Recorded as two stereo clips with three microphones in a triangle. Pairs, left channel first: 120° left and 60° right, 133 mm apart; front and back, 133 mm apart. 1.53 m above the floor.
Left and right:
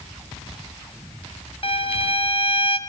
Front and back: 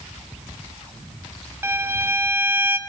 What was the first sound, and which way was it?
A violin, 115° left.